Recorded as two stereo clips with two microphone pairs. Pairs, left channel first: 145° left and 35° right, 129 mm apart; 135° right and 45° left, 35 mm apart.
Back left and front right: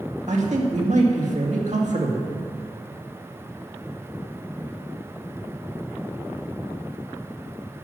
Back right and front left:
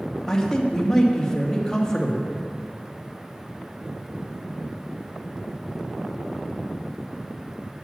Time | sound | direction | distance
0.3 | a man speaking | 55° right | 1.9 m